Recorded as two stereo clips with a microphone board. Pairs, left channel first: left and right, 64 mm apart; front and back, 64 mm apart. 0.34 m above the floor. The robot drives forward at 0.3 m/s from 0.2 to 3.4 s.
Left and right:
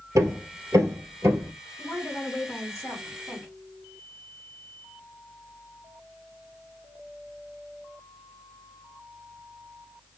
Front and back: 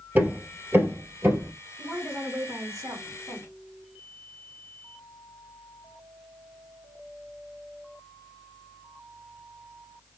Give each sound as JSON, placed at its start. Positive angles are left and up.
{"t": 0.1, "sound": "hammering", "azimuth_deg": -120, "distance_m": 2.0}
{"t": 1.8, "sound": "a woman speaking", "azimuth_deg": 175, "distance_m": 2.5}